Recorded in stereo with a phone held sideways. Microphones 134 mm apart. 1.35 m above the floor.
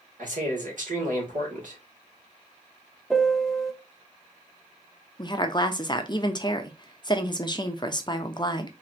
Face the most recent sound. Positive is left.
turn(degrees=35)  # may be behind; listen again after turning